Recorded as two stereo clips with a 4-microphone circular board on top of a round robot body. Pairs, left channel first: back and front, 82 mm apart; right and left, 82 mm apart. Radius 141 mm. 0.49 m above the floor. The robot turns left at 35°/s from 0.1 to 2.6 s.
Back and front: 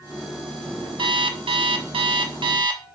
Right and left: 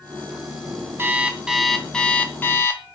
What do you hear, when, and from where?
1.0 s an alarm clock: 25° left, 0.9 m; by 2.8 s 30° right, 0.9 m